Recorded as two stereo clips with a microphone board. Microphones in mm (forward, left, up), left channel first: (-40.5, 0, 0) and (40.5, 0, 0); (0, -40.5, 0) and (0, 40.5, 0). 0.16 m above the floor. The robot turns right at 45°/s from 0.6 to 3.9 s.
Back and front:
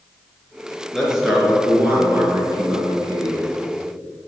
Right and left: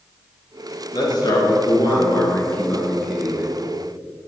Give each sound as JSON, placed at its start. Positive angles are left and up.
{"t": 0.9, "sound": "a man speaking", "azimuth_deg": -95, "distance_m": 2.0}